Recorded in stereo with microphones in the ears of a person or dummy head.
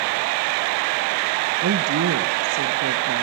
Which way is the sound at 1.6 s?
85° right.